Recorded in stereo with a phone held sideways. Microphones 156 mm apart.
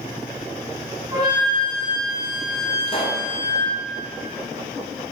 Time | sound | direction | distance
1.1 | a flute | 30° right (ahead or behind) | 8.5 m
2.9 | a pop | 35° left (ahead or behind) | 2.5 m